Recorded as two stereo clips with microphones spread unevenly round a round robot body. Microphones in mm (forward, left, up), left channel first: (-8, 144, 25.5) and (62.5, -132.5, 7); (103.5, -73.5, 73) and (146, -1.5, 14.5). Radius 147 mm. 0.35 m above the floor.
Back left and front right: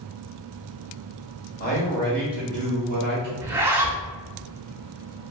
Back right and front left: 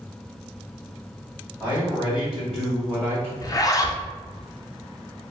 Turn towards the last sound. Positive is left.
turn(degrees=-20)